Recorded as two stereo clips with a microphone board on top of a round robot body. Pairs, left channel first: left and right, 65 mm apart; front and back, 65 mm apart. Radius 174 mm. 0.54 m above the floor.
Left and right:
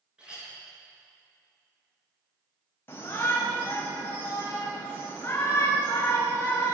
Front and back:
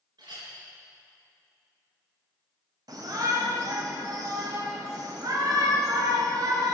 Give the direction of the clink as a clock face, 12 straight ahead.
6 o'clock.